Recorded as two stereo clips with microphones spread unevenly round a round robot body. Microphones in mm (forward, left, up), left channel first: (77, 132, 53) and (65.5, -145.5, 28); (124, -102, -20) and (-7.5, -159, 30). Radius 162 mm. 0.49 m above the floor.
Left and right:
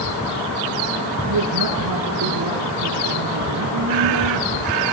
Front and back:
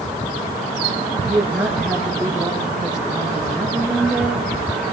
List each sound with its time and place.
1.2 s a woman speaking: 70° right, 9 m